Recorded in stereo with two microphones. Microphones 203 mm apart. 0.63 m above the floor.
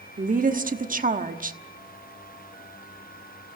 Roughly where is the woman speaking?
Right.